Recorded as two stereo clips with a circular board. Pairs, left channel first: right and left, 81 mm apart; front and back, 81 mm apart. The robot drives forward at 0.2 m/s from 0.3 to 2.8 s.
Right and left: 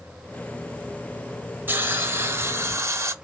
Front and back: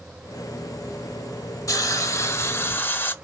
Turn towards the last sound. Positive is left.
turn(degrees=55)